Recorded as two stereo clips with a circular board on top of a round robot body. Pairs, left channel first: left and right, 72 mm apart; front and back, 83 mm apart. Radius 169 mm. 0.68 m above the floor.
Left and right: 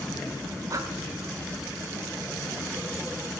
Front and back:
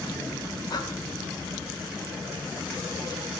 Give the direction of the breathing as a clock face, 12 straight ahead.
1 o'clock.